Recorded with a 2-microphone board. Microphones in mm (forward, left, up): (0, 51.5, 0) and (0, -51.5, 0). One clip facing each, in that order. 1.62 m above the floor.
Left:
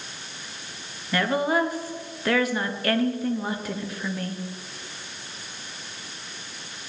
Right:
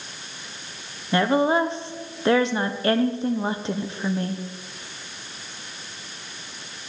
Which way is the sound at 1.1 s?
25° right (ahead or behind).